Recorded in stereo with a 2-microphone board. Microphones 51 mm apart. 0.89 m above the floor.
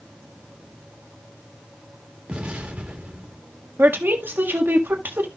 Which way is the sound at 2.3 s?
25° right (ahead or behind).